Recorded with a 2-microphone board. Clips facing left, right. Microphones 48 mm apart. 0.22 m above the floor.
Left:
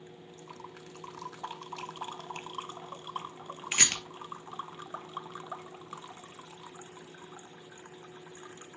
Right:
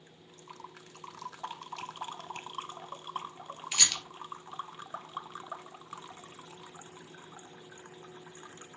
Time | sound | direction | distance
3.7 | a rattle | 40° left (ahead or behind) | 1.2 m